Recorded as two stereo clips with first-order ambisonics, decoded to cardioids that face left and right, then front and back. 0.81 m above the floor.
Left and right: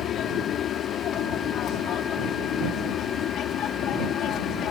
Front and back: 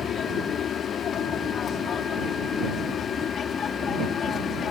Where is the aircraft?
50° left; by 4.7 s 55° left.